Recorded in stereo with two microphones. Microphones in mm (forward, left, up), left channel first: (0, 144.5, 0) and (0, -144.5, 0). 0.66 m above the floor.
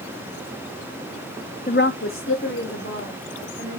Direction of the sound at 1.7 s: 30° left (ahead or behind).